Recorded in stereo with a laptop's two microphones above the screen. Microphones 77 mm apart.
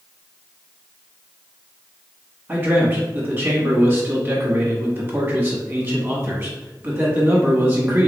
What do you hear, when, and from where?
2.5 s a man speaking: 25° right (ahead or behind), 1.3 m